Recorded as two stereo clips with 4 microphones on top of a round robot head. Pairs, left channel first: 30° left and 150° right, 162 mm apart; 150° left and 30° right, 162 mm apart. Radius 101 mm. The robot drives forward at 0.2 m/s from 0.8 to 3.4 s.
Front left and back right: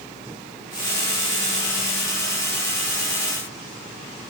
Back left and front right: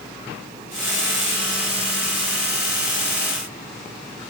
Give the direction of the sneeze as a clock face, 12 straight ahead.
No sneeze in this recording.